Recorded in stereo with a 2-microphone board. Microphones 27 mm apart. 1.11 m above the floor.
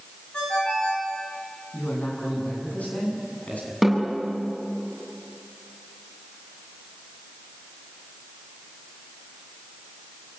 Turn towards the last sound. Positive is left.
turn(degrees=0)  # may be behind; listen again after turning